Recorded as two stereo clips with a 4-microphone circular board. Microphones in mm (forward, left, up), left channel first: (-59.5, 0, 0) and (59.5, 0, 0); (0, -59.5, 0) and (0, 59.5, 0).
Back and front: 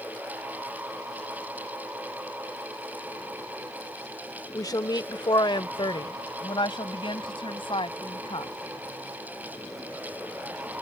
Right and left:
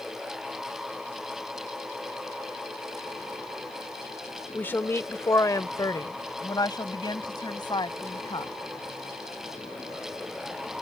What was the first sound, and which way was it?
A woman speaking, 155° right.